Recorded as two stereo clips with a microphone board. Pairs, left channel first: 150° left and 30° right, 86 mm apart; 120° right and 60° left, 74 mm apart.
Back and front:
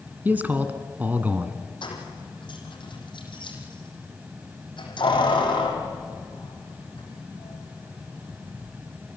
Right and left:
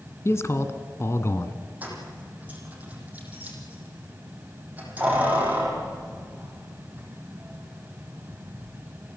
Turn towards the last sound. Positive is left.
turn(degrees=130)